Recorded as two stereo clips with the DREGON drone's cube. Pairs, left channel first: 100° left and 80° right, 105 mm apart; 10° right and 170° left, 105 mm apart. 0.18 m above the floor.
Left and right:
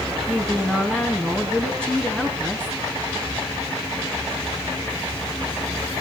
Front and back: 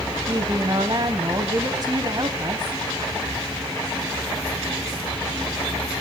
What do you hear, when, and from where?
0.3 s a woman speaking: 175° left, 1.3 m